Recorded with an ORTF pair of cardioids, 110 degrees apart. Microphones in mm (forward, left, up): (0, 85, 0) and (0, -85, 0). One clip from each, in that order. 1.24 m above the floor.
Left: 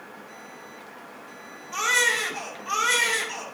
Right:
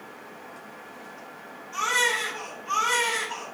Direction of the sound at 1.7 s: 65° left.